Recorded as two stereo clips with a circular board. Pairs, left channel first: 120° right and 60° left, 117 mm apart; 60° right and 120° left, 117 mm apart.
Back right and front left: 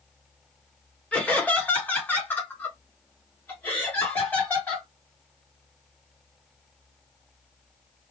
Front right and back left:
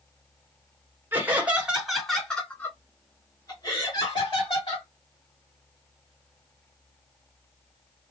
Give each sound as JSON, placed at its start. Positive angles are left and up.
{"t": 1.1, "sound": "laughter", "azimuth_deg": 175, "distance_m": 1.5}